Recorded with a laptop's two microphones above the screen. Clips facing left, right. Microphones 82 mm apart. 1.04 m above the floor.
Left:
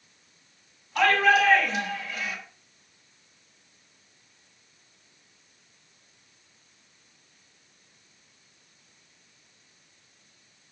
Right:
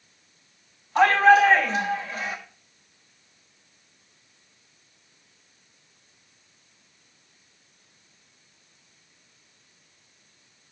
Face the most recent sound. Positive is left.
turn(degrees=-40)  # may be behind; listen again after turning